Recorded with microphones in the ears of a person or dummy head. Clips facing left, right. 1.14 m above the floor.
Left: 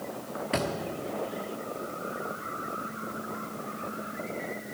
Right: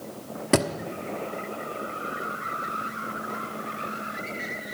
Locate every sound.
0.5 s a thud: 60° right (ahead or behind), 1.1 m